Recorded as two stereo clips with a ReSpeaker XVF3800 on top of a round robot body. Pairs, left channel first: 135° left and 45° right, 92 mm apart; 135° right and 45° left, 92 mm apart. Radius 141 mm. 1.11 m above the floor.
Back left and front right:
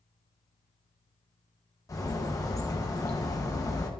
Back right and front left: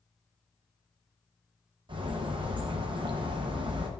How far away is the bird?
About 0.9 m.